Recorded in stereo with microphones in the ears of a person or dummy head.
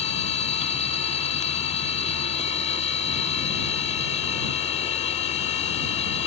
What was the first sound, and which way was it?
A machine running, 40° left (ahead or behind).